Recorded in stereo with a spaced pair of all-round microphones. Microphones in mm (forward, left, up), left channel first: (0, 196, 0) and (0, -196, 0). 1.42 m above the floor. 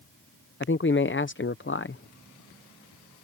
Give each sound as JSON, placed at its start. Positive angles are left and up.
{"t": 0.6, "sound": "a man speaking", "side_deg": 30}